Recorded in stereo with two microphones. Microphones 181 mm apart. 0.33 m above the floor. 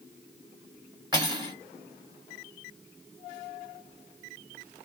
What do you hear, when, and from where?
1.1 s cutlery clinking: 25° right (ahead or behind), 2 m